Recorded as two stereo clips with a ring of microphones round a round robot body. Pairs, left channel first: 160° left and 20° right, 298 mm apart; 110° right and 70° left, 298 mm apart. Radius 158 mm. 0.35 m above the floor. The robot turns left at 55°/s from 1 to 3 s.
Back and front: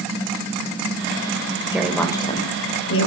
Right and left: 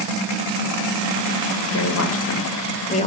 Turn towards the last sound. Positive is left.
turn(degrees=-175)